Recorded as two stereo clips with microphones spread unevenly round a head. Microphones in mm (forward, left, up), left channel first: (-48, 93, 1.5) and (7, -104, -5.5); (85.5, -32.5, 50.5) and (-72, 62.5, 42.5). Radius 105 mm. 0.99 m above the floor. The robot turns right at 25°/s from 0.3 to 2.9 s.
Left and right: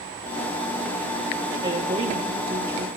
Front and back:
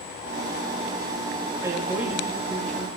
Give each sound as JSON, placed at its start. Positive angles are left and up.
{"t": 1.6, "sound": "a woman speaking", "azimuth_deg": -140, "distance_m": 1.7}